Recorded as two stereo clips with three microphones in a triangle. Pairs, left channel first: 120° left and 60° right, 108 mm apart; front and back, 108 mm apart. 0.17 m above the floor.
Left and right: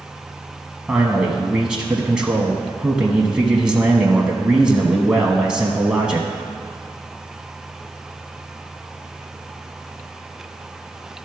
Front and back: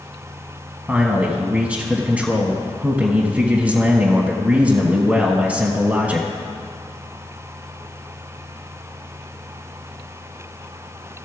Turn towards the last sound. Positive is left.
turn(degrees=-130)